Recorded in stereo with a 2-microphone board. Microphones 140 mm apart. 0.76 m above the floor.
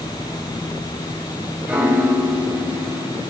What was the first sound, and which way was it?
A piano, 10° right (ahead or behind).